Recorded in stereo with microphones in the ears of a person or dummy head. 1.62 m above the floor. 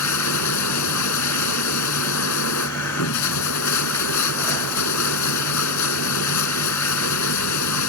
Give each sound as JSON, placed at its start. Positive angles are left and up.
{"t": 0.0, "sound": "running water", "side_deg": 85}